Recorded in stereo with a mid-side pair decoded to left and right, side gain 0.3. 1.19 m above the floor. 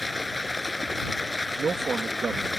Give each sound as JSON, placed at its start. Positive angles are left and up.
{"t": 0.0, "sound": "running water", "azimuth_deg": 15}
{"t": 1.6, "sound": "a man speaking", "azimuth_deg": -65}